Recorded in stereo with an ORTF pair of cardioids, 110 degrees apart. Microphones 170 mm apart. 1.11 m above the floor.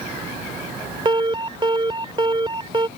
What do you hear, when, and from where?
1.1 s an alarm: 30° right